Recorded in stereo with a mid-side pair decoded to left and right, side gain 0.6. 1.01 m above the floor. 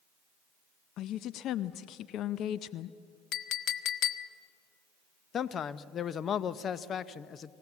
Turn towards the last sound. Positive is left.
turn(degrees=40)